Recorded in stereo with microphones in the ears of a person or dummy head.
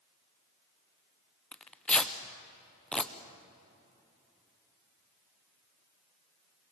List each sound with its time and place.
1.5 s tearing paper: 5° left (ahead or behind), 0.9 m